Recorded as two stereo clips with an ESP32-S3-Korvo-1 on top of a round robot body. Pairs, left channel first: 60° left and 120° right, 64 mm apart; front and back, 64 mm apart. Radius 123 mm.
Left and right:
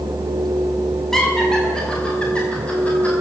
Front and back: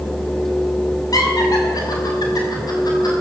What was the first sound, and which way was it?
Laughter, 25° right.